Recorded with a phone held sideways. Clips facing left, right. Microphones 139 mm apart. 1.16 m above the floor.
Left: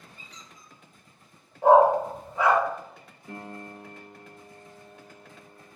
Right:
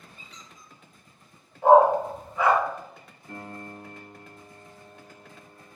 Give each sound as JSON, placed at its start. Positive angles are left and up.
{"t": 0.2, "sound": "a squeak", "side_deg": 40, "distance_m": 1.3}
{"t": 1.6, "sound": "a dog barking", "side_deg": 35, "distance_m": 1.3}
{"t": 3.3, "sound": "a piano", "side_deg": 80, "distance_m": 0.8}